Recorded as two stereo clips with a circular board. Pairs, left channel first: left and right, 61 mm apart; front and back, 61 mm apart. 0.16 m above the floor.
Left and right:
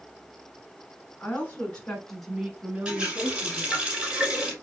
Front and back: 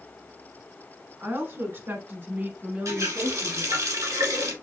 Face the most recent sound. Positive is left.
turn(degrees=-160)